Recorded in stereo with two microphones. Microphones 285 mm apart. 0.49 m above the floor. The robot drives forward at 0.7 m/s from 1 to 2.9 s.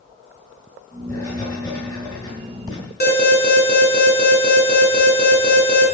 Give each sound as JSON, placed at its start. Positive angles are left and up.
{"t": 1.1, "sound": "writing", "side_deg": 10, "distance_m": 7.5}
{"t": 3.0, "sound": "an alarm", "side_deg": 35, "distance_m": 4.0}